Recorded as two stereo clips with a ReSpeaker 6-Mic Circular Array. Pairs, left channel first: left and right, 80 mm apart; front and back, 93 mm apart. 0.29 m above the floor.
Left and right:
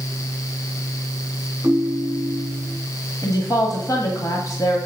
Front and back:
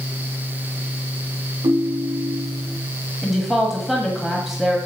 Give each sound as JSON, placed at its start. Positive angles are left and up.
{"t": 1.6, "sound": "a ringtone", "azimuth_deg": -150, "distance_m": 1.0}
{"t": 3.2, "sound": "a woman speaking", "azimuth_deg": 90, "distance_m": 1.4}